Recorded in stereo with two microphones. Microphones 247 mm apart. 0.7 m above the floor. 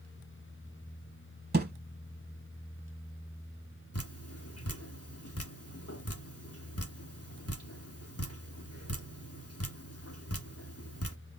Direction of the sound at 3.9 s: 75° left (ahead or behind).